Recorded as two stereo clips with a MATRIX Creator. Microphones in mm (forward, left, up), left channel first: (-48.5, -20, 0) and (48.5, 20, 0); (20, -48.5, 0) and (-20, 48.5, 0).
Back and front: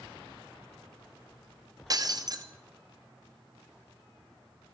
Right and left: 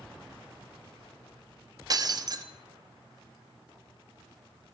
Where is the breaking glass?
70° left, 1.0 m.